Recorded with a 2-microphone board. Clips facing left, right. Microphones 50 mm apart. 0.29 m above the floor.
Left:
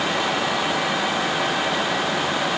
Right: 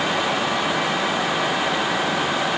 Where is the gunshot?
No gunshot in this recording.